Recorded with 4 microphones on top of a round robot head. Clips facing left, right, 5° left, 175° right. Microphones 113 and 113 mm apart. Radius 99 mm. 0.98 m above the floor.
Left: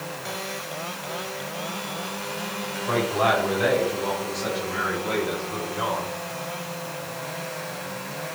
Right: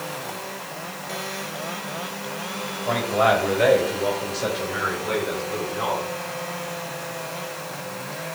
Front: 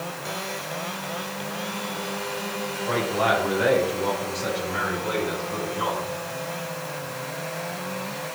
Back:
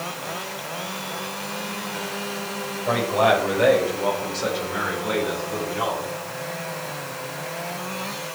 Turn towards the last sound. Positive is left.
turn(degrees=-160)